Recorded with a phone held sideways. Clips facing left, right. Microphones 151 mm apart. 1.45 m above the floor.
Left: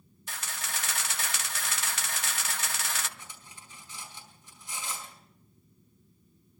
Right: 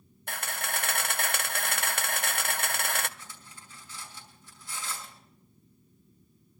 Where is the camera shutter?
60° right (ahead or behind), 0.5 m.